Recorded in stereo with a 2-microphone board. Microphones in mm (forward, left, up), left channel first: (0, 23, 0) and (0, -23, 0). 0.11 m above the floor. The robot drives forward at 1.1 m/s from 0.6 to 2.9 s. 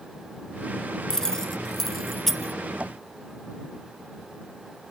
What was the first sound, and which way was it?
Keys jangling, 15° left (ahead or behind).